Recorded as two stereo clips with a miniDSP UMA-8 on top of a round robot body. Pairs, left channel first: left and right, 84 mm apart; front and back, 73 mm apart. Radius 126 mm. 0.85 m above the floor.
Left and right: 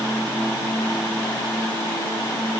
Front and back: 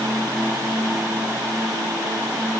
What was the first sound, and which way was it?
Only background noise.